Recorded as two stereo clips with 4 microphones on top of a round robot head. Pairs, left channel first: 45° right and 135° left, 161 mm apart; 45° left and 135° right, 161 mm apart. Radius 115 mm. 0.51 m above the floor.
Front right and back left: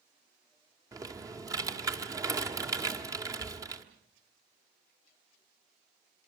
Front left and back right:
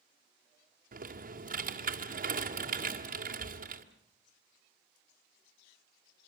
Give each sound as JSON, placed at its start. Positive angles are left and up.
{"t": 0.9, "sound": "typing on a keyboard", "azimuth_deg": -160, "distance_m": 1.9}